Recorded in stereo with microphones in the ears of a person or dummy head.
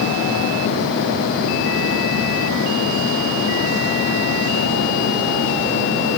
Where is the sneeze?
I don't hear a sneeze.